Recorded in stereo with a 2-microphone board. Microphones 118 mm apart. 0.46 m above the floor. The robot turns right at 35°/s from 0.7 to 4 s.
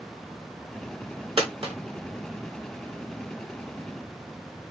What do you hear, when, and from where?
1.4 s a dropped coin: 50° right (ahead or behind), 0.8 m; by 1.8 s 55° right (ahead or behind), 0.8 m